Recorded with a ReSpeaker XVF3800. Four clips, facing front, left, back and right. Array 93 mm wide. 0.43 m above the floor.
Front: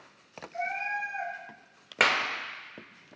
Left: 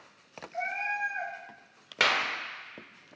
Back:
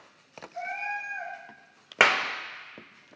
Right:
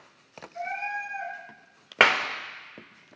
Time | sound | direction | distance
0.5 | a cat meowing | 65° left | 2.5 m
2.0 | a clap | 120° right | 0.8 m